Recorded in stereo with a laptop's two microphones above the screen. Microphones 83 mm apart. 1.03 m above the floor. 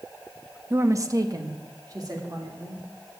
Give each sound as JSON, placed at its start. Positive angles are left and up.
{"t": 0.7, "sound": "a woman speaking", "side_deg": -30, "distance_m": 0.6}